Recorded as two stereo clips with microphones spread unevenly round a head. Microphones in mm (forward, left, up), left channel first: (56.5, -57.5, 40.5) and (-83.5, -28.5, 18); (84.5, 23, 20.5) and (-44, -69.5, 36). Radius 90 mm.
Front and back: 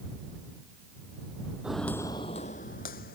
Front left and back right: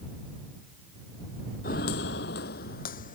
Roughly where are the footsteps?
Left.